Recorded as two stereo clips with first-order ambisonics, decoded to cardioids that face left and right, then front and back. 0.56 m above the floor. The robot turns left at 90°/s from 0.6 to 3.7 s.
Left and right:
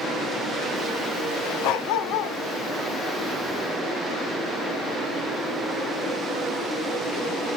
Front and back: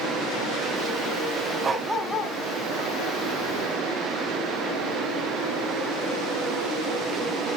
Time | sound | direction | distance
1.6 | a dog barking | 115° left | 1.1 m